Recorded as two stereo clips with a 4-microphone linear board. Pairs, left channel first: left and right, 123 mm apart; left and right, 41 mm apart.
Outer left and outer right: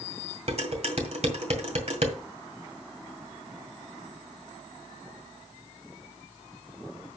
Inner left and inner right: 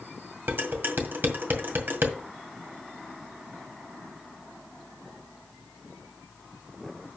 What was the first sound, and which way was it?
Dishes clattering, 60° right (ahead or behind).